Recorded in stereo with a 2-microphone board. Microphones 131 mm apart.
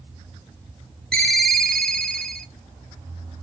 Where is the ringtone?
5° left (ahead or behind), 0.6 m.